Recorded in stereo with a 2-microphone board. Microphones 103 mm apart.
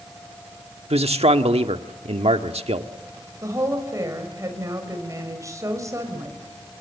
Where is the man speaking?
80° right, 1.6 m.